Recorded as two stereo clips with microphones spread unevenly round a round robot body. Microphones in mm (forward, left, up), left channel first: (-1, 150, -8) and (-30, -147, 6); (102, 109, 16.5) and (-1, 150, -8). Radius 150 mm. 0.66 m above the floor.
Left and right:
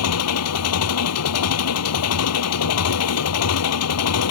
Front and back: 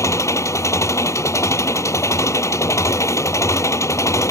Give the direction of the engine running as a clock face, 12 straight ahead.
11 o'clock.